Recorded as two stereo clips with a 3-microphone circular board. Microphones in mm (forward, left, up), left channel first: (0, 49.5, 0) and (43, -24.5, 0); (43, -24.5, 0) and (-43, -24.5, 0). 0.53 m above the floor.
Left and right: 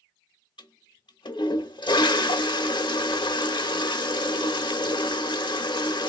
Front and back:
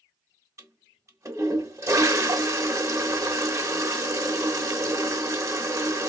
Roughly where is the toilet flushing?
Behind left.